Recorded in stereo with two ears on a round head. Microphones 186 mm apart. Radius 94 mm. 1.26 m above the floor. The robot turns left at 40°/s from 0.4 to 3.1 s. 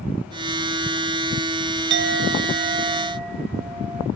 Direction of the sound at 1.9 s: 115° right.